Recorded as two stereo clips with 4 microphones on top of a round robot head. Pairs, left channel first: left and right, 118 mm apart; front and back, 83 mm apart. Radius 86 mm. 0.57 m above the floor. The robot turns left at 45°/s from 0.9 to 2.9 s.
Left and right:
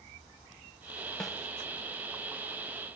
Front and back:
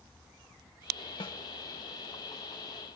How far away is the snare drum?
About 2.5 m.